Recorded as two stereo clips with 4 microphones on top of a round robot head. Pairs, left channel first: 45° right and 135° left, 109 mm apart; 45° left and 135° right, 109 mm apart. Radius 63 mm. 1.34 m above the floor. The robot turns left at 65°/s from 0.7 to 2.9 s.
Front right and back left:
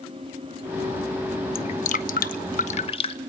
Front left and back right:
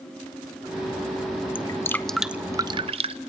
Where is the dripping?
5° right, 1.0 m; by 3.2 s 90° right, 1.0 m.